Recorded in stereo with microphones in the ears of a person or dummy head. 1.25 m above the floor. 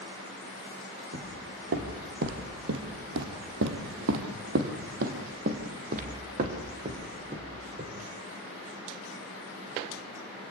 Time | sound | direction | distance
1.1 | footsteps | 55° right (ahead or behind) | 3 m